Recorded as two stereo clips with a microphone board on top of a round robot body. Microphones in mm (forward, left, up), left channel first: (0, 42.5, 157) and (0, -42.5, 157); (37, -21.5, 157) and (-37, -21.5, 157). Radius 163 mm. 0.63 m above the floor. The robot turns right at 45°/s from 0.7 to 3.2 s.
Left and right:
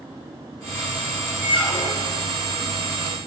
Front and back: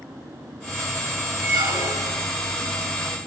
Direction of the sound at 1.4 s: 165° left.